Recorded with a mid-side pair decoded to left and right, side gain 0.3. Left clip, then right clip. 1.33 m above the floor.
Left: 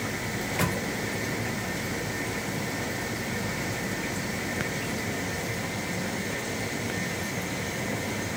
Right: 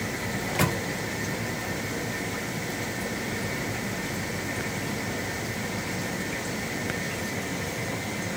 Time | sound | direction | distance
0.3 | a microwave | 35° right | 0.6 m